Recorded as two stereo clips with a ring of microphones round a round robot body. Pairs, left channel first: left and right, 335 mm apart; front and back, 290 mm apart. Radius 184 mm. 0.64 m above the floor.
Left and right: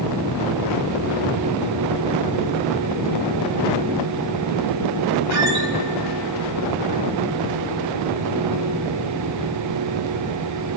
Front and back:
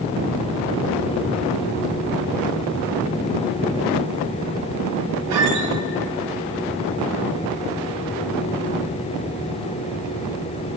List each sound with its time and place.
5.3 s a squeak: 135° right, 1.1 m